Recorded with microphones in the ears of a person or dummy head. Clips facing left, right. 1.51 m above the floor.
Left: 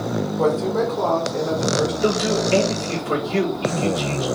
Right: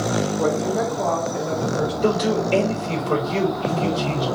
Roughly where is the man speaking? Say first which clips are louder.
Even; left.